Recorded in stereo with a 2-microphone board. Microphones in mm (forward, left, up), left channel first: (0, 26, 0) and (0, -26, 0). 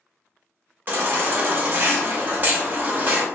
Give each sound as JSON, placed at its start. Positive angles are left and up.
{"t": 0.9, "sound": "a baby crying", "side_deg": -40, "distance_m": 0.7}